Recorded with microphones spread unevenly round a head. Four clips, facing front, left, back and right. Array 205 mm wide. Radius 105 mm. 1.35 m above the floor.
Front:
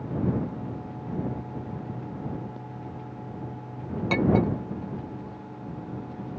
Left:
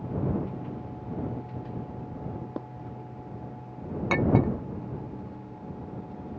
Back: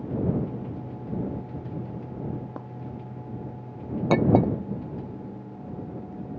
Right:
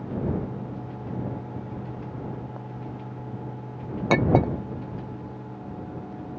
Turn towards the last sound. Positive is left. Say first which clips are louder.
# right 3 dB, back 3 dB
turn(degrees=-145)